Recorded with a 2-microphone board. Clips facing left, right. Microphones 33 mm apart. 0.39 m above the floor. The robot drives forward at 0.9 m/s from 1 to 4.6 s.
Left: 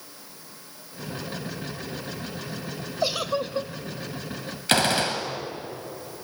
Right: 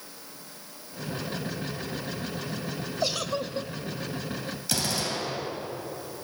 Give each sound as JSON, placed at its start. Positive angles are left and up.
{"t": 3.0, "sound": "a giggle", "side_deg": 15, "distance_m": 0.9}
{"t": 4.7, "sound": "a gunshot", "side_deg": 55, "distance_m": 2.5}